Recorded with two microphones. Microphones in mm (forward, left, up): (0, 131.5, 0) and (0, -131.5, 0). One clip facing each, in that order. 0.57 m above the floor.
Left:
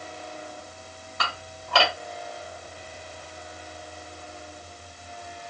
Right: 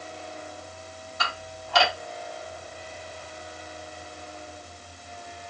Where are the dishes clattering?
70° left (ahead or behind), 1.8 m.